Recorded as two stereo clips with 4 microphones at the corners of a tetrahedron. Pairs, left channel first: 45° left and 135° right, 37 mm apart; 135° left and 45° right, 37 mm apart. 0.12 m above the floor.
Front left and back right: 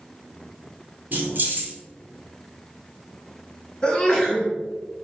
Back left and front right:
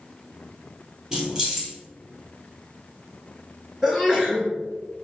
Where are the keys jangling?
110° right, 1.8 m.